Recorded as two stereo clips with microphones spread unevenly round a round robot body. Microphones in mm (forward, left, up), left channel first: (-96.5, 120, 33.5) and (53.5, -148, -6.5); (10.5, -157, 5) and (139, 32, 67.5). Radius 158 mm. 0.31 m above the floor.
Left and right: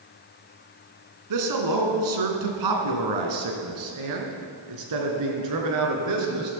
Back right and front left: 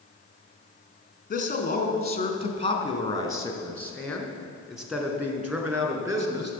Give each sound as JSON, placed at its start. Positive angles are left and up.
{"t": 1.3, "sound": "a man speaking", "azimuth_deg": -80, "distance_m": 3.0}